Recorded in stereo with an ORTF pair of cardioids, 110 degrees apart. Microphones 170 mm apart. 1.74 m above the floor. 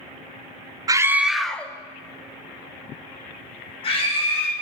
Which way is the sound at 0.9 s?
20° right.